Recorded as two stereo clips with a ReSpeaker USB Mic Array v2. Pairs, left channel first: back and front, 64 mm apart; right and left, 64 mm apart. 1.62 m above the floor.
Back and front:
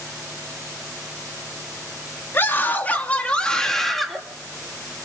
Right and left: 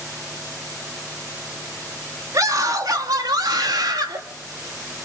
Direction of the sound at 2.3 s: 125° left.